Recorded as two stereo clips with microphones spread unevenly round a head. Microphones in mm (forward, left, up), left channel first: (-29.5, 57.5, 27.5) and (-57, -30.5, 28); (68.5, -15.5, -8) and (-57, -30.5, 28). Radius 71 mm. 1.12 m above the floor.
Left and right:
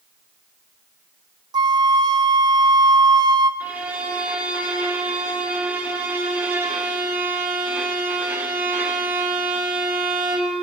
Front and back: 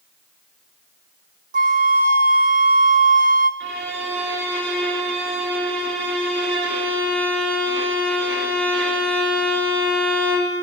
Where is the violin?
Straight behind, 2.5 m.